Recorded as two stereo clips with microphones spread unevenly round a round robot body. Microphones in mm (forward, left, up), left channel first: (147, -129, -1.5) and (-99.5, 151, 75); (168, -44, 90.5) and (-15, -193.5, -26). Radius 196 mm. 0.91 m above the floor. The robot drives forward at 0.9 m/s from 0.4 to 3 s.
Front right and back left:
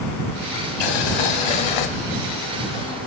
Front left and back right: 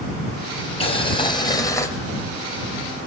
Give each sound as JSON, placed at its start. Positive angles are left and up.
{"t": 0.8, "sound": "boiling", "azimuth_deg": -25, "distance_m": 3.0}